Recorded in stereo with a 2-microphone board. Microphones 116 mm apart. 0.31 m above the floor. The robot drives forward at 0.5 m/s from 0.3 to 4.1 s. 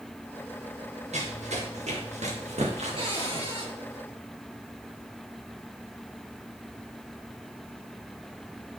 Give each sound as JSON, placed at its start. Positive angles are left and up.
{"t": 1.1, "sound": "running footsteps", "side_deg": -70, "distance_m": 4.5}
{"t": 3.0, "sound": "a cupboard door", "side_deg": -50, "distance_m": 4.0}